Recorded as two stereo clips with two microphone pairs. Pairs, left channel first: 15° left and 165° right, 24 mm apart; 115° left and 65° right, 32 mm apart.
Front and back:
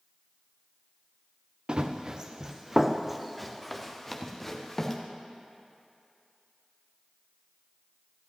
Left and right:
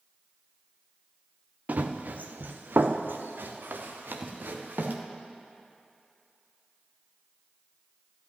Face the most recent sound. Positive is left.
turn(degrees=-55)